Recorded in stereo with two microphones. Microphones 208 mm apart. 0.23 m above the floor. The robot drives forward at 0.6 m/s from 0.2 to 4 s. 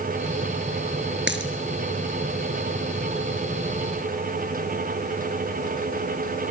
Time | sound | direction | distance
1.3 | a dropped coin | 65° right (ahead or behind) | 1.9 m